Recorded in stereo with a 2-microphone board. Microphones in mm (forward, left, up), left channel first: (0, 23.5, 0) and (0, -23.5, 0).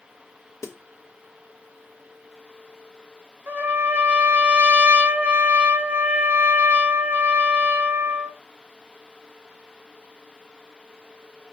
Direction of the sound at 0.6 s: 80° left.